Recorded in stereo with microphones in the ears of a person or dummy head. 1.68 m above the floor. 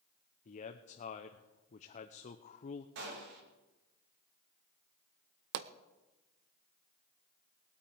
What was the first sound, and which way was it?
A man speaking, 40° left (ahead or behind).